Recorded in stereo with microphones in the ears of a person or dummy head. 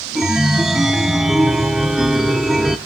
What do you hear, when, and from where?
0.1 s a chime: centre (ahead or behind), 0.5 m